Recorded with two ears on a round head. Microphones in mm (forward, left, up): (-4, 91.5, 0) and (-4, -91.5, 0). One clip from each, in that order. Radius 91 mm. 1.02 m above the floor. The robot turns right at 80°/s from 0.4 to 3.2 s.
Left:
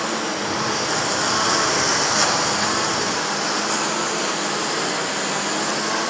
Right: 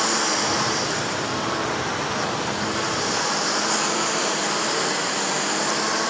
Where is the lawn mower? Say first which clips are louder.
Right 2 dB; 35° right; by 6.1 s 170° right.